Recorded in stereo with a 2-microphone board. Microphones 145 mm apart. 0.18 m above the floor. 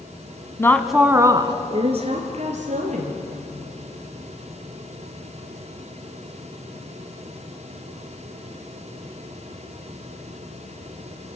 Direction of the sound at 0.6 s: 20° left (ahead or behind).